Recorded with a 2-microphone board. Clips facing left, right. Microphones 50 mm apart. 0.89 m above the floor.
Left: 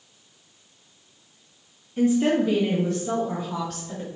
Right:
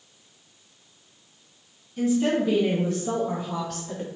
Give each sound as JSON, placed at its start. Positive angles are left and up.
{"t": 2.0, "sound": "a woman speaking", "side_deg": 40, "distance_m": 0.7}